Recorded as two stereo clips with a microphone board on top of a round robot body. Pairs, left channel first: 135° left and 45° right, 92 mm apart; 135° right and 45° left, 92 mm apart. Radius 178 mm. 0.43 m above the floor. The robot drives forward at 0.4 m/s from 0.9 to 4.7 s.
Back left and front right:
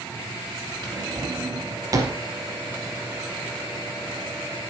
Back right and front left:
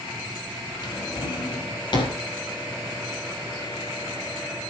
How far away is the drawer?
About 3.5 m.